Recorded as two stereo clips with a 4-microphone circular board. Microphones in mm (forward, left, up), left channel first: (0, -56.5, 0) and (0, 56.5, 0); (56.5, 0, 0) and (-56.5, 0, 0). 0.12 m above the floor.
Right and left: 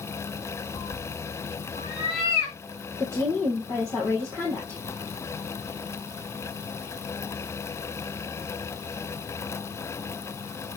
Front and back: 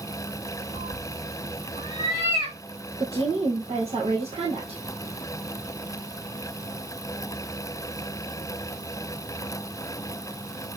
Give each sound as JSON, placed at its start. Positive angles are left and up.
{"t": 0.7, "sound": "a cat meowing", "azimuth_deg": -140, "distance_m": 6.5}
{"t": 3.0, "sound": "a woman speaking", "azimuth_deg": -155, "distance_m": 3.0}